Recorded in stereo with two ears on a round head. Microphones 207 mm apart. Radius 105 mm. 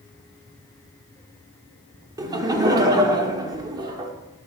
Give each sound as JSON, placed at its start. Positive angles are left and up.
{"t": 2.2, "sound": "laughter", "side_deg": -15, "distance_m": 0.7}